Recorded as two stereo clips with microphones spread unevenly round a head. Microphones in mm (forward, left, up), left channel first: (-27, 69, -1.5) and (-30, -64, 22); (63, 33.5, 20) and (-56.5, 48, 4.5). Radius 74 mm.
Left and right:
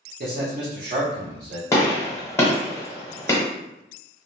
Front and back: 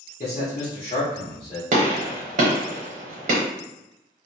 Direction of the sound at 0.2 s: 60° right.